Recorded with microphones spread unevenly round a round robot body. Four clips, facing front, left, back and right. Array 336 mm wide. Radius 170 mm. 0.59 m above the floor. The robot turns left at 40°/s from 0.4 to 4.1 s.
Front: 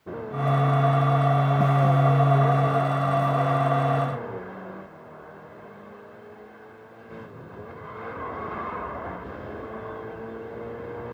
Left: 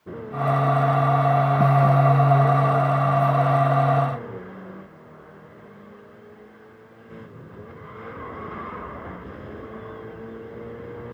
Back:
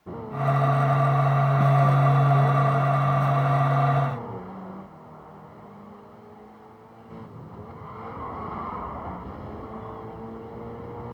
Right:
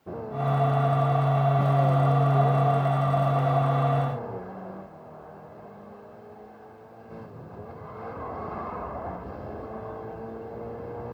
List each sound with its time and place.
Only background noise.